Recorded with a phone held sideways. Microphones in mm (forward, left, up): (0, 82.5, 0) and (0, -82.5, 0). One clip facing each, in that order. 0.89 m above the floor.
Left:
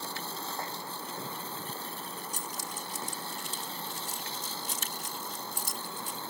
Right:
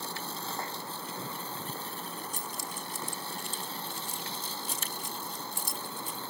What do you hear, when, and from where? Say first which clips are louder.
2.3 s keys jangling: even; 70° left (ahead or behind)